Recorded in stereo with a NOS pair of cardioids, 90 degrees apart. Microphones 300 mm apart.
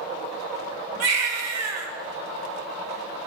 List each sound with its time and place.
1.0 s a baby crying: 60° right, 1.0 m